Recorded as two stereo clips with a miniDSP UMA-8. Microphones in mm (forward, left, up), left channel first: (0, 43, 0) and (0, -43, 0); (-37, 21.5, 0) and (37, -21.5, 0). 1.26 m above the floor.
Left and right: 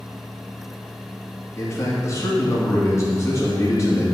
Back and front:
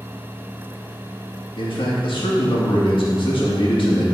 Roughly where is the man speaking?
Behind left.